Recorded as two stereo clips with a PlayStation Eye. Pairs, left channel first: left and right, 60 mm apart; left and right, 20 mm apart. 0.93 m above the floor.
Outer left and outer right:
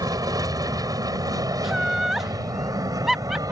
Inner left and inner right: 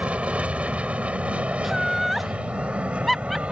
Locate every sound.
0.0 s an aircraft: 75° right (ahead or behind); by 3.5 s 65° right (ahead or behind)
1.6 s laughter: 5° right (ahead or behind)